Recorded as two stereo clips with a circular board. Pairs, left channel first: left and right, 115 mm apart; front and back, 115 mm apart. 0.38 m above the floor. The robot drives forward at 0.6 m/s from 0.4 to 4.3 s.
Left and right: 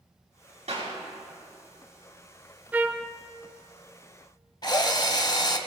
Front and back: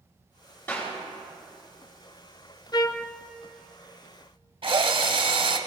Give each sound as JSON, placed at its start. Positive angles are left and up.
{"t": 0.7, "sound": "a clap", "azimuth_deg": -70, "distance_m": 5.5}
{"t": 2.7, "sound": "a trumpet", "azimuth_deg": -20, "distance_m": 0.5}
{"t": 4.6, "sound": "a drill", "azimuth_deg": 140, "distance_m": 1.0}